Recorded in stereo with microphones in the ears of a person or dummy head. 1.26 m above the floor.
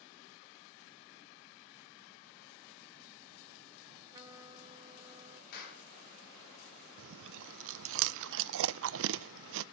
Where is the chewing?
70° right (ahead or behind), 0.6 m.